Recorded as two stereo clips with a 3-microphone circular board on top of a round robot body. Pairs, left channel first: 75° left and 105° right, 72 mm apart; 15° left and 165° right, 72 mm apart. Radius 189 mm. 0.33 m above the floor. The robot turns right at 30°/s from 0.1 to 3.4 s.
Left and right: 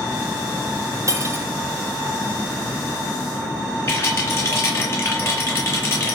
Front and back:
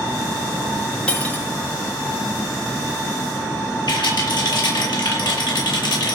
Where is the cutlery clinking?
60° right, 2.5 m; by 1.5 s 50° right, 2.5 m.